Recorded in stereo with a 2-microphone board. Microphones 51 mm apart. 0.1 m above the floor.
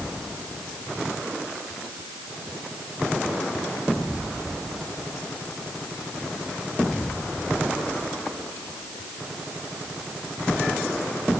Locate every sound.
Only background noise.